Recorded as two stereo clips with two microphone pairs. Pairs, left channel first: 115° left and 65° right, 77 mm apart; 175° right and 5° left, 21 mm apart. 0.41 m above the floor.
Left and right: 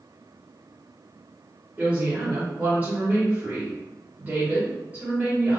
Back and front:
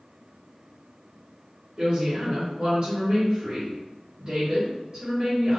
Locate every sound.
1.8 s a woman speaking: 15° right, 1.6 m